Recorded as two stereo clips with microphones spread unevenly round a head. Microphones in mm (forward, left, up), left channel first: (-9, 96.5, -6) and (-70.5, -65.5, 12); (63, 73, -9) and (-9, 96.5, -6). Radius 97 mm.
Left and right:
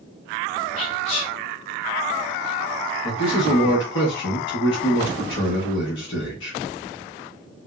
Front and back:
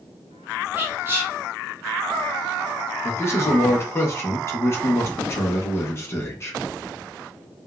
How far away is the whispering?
About 0.9 m.